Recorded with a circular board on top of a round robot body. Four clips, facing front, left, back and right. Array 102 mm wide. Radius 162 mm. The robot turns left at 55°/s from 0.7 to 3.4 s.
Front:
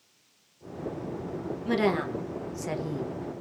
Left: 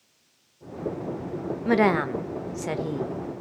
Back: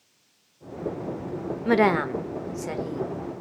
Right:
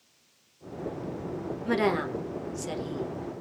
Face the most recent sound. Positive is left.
turn(degrees=55)